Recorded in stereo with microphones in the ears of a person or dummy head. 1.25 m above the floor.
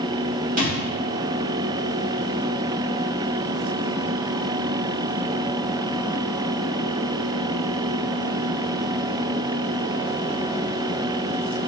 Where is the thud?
50° right (ahead or behind), 1.1 m.